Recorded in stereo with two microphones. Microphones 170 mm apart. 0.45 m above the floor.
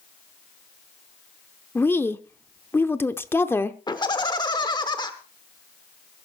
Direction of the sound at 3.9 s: 25° left (ahead or behind).